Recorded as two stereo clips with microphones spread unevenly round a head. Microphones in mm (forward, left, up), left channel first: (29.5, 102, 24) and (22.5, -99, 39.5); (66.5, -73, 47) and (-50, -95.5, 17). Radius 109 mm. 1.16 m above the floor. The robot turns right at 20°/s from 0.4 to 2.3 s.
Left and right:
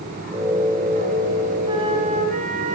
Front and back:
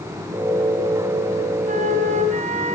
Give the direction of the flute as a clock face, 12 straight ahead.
5 o'clock.